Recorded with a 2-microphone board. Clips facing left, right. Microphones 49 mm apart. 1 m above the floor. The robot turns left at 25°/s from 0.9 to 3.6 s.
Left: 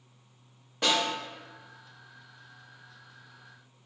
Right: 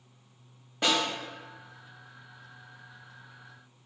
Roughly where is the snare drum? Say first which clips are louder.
Even; centre.